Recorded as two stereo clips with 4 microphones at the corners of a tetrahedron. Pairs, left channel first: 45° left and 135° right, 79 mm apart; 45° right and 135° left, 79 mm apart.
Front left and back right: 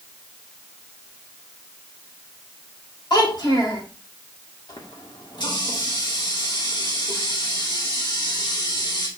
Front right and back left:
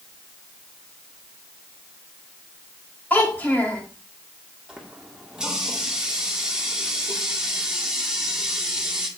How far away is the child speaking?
About 5 m.